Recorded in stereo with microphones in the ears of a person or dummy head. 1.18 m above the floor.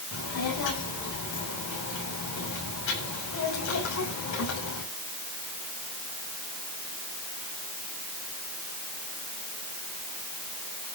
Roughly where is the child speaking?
Left.